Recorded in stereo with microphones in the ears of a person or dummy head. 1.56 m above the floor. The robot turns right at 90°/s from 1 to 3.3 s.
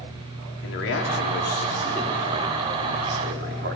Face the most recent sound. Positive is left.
turn(degrees=-70)